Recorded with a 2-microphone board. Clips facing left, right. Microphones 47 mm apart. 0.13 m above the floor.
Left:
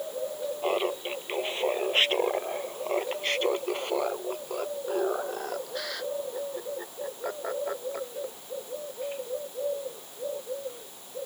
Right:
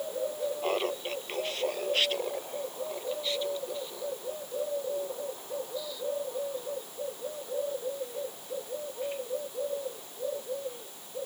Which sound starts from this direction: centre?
Laughter, at 0.6 s.